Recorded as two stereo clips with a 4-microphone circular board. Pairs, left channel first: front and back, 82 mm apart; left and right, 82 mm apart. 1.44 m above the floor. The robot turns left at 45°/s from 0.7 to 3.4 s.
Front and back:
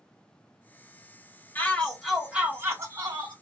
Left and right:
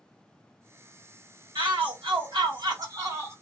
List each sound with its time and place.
1.6 s a shout: 70° right, 2 m; by 3.3 s 150° right, 2 m